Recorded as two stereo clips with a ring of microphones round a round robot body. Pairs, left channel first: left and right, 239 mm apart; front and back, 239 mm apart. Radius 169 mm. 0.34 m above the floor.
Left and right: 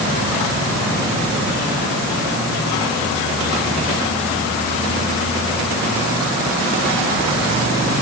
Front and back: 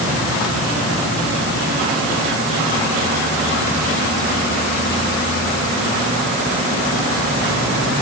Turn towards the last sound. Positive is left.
No sound to turn to.